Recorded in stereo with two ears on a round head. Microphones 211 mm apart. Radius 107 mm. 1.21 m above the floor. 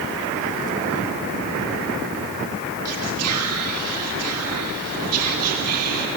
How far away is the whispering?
About 2.5 m.